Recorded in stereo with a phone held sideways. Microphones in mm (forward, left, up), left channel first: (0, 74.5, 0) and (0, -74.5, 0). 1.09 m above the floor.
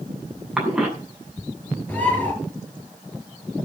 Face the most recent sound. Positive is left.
turn(degrees=10)  # may be behind; listen again after turning